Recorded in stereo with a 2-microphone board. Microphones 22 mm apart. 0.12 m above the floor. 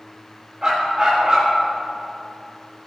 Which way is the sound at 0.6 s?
30° right (ahead or behind).